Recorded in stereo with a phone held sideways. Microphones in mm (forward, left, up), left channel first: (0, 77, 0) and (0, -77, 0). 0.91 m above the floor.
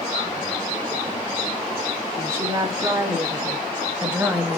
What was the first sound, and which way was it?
A woman speaking, 20° right (ahead or behind).